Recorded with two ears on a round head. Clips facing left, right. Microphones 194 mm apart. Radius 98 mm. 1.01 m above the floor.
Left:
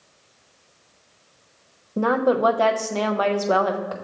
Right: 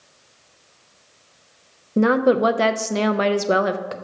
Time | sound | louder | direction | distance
2.0 | a woman speaking | right 3 dB | 30° right (ahead or behind) | 0.7 m